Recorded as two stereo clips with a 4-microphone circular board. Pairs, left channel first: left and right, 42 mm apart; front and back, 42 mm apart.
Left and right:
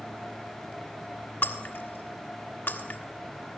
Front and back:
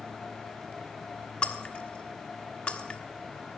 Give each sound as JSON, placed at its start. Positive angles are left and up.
{"t": 1.4, "sound": "breaking glass", "azimuth_deg": 60, "distance_m": 1.4}